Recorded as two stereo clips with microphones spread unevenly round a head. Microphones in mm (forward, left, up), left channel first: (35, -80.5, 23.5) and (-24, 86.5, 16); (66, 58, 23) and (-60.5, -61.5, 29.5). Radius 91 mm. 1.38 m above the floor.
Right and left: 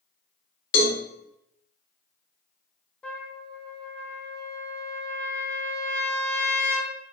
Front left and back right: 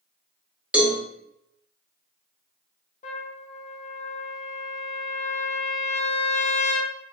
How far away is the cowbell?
About 0.8 m.